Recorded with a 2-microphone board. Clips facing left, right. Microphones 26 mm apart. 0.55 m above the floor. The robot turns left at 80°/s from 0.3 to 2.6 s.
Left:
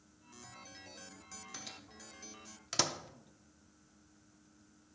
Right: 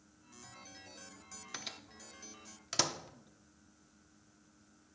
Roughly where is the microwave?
Right.